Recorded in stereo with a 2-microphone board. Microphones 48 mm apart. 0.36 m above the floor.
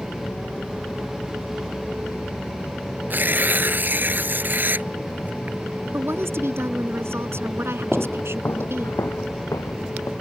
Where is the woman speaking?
60° right (ahead or behind).